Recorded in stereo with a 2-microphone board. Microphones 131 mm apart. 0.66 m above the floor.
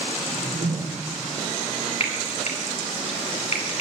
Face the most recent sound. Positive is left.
turn(degrees=55)  # may be behind; listen again after turning